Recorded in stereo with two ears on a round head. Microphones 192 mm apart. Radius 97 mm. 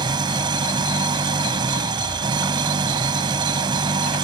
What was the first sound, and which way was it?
An engine running, 20° right (ahead or behind).